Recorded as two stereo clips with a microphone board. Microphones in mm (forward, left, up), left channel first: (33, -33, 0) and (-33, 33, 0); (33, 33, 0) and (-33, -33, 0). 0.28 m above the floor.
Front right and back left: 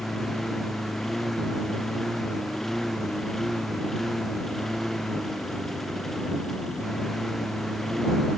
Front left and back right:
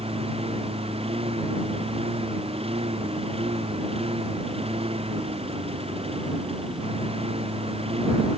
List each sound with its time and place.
0.0 s a lawn mower: 135° right